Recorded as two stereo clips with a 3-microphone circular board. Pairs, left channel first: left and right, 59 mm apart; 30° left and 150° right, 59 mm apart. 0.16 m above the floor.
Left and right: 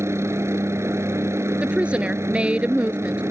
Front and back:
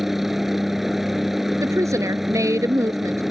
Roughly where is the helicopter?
Ahead right.